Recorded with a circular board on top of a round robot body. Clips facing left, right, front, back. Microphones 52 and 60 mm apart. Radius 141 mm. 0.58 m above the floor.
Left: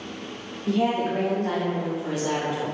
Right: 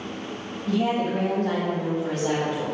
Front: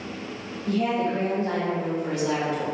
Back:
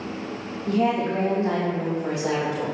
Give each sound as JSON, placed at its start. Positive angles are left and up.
{"t": 0.7, "sound": "a woman speaking", "azimuth_deg": 120, "distance_m": 1.3}